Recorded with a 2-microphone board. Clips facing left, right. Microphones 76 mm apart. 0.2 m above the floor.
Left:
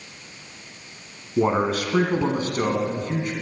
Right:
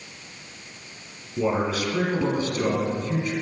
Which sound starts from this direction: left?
A man speaking, at 1.4 s.